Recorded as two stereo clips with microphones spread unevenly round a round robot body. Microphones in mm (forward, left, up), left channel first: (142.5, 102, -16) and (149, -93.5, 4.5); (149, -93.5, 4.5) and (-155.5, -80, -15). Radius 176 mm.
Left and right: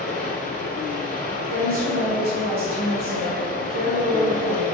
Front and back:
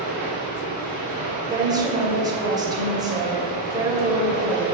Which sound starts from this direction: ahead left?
Running water, at 0.0 s.